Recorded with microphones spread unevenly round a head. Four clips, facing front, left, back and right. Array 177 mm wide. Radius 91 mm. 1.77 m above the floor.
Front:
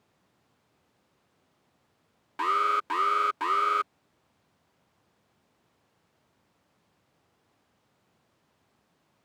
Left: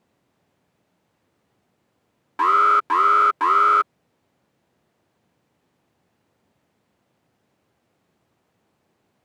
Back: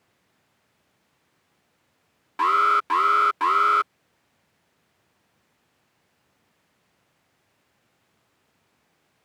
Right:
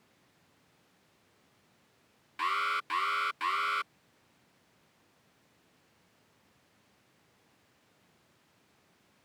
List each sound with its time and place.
2.4 s an alarm: 90° left